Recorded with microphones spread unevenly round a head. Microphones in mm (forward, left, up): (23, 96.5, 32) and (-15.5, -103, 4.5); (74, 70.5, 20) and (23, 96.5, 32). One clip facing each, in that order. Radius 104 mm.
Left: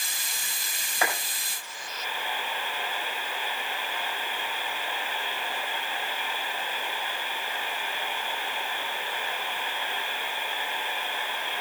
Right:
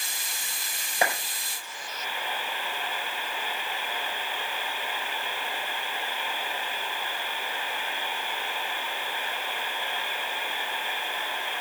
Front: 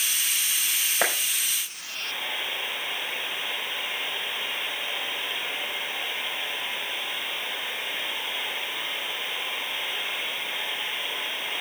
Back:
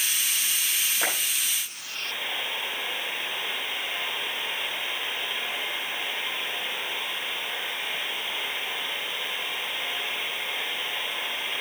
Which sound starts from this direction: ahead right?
A clap, at 1.0 s.